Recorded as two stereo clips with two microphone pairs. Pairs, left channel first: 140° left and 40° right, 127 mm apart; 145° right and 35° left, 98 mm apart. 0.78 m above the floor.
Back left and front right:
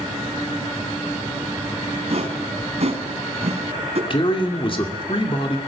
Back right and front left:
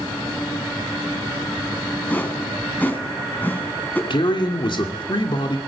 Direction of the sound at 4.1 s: 175° right.